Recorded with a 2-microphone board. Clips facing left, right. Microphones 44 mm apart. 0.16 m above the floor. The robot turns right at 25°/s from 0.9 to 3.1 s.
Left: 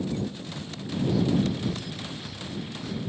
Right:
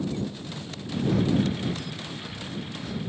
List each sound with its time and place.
1.1 s breathing: 45° right (ahead or behind); by 3.1 s 5° left (ahead or behind)